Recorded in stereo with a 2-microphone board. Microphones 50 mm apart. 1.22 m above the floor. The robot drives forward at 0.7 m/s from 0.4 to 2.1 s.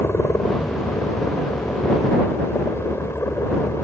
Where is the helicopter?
60° left (ahead or behind).